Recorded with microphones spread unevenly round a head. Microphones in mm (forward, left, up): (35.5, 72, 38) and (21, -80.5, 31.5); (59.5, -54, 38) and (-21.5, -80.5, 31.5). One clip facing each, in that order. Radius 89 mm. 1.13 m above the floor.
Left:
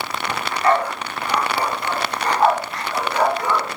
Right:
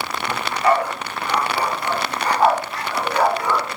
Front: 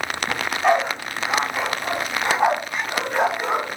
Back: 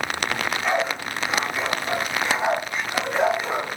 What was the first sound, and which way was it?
A dog barking, 15° right.